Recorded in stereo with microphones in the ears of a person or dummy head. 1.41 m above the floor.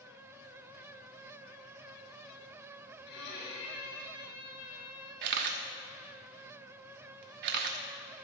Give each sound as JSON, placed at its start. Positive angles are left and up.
{"t": 3.1, "sound": "a violin", "side_deg": 60, "distance_m": 5.5}
{"t": 5.2, "sound": "a camera shutter", "side_deg": -50, "distance_m": 1.2}